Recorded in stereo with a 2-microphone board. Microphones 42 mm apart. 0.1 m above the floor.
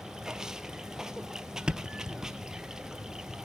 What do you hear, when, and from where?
0.0 s running water: 10° right (ahead or behind), 0.9 m
1.7 s a thud: 20° right (ahead or behind), 0.5 m